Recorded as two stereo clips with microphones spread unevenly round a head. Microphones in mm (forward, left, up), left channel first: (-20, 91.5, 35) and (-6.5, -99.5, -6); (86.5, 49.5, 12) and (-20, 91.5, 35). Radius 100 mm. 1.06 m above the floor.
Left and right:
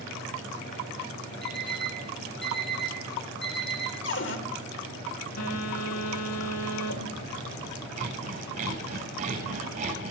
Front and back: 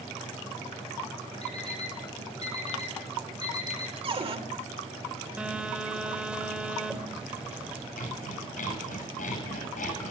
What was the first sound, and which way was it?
An alarm clock, 5° left.